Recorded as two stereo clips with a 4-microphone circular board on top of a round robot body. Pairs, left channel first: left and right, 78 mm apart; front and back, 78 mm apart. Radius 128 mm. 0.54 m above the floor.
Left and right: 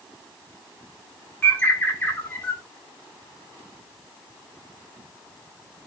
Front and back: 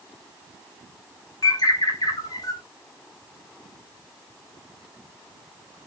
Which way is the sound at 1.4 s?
25° left.